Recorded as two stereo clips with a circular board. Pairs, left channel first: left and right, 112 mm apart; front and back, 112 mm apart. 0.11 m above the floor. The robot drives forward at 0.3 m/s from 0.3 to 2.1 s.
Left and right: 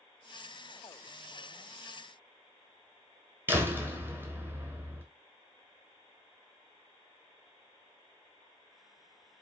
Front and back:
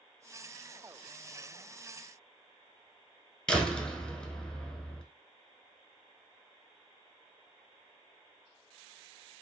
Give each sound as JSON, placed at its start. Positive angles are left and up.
{"t": 3.5, "sound": "a door slam", "azimuth_deg": -70, "distance_m": 0.8}